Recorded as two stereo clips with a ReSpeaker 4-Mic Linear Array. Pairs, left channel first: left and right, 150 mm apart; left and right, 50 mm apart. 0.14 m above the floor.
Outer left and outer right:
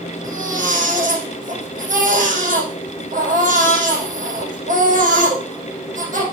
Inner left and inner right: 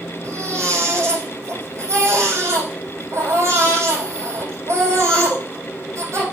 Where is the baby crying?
60° right (ahead or behind), 5 m.